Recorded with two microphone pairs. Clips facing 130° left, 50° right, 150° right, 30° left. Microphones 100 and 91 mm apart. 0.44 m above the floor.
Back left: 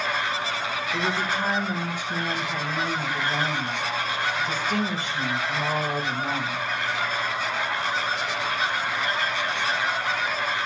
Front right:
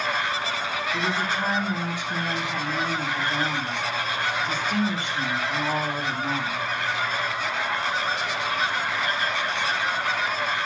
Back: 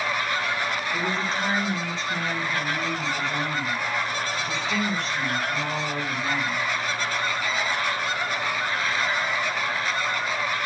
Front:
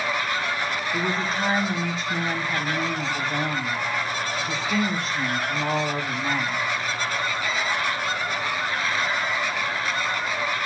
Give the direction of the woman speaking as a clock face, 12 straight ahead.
8 o'clock.